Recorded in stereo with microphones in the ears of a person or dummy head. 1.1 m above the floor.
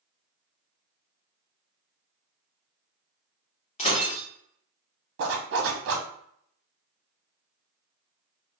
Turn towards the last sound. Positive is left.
turn(degrees=-60)  # may be behind; listen again after turning